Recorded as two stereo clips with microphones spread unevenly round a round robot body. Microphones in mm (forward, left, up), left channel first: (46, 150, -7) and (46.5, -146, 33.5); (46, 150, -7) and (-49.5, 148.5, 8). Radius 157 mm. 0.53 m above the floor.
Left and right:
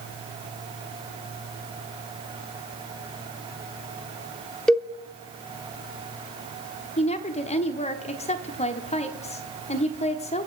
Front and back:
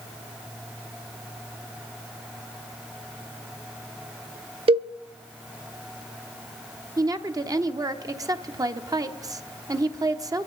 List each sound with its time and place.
4.7 s a cowbell: 170° left, 0.5 m
7.0 s a woman speaking: 135° left, 1.1 m